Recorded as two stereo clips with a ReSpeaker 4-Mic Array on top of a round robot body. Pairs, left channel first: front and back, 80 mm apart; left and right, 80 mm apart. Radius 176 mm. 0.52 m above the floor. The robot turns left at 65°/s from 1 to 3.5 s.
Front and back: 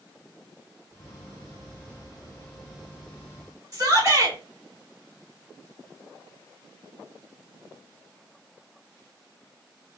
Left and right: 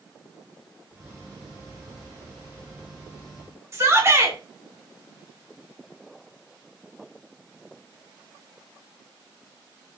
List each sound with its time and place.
3.7 s a shout: 140° right, 2.5 m